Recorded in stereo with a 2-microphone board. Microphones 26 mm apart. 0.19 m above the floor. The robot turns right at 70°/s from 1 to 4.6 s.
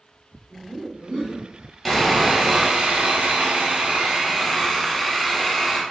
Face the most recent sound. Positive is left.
turn(degrees=0)